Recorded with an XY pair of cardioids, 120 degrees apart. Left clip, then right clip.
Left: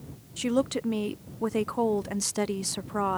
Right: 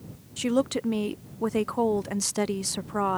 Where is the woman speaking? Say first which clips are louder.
Right 1 dB; 10° right.